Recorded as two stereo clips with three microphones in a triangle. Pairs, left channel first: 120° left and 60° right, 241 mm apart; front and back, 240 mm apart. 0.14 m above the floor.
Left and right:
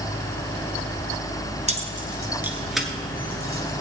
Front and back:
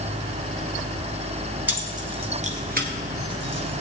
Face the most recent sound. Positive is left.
turn(degrees=-170)